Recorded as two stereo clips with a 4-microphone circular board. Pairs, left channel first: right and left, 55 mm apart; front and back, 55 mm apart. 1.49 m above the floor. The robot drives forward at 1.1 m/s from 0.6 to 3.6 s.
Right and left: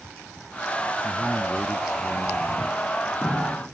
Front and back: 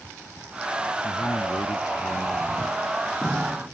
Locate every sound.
1.0 s a man speaking: 15° left